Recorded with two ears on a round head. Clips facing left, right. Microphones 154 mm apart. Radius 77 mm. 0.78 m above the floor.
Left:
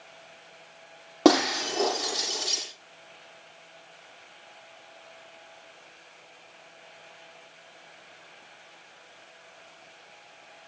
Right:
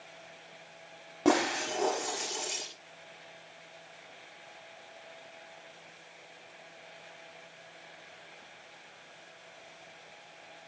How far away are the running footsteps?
No running footsteps in this recording.